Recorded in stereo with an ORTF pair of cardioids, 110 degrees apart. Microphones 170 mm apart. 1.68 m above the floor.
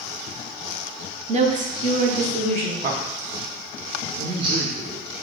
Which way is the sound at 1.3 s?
35° right.